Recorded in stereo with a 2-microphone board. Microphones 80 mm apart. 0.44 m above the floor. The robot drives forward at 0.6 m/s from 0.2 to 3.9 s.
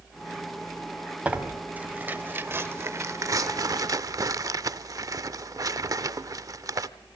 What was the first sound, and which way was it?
Tearing paper, 15° right (ahead or behind).